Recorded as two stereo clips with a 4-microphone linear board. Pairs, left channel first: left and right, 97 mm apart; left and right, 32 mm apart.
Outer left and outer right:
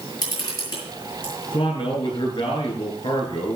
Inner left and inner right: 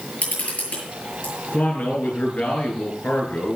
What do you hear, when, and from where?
0.2 s a camera shutter: 45° left (ahead or behind), 7.5 m
1.5 s a man speaking: 60° left (ahead or behind), 8.5 m